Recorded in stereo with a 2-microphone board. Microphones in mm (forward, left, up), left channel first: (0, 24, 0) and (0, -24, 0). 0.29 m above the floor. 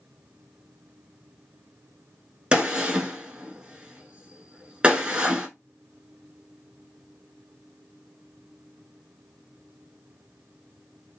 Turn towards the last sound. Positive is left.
turn(degrees=-20)  # may be behind; listen again after turning